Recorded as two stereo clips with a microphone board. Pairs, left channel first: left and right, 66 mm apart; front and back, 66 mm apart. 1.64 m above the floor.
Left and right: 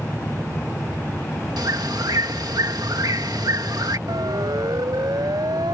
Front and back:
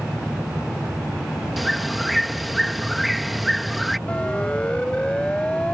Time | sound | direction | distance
1.6 | a bird | 90° right | ?
4.1 | a siren | 75° right | ?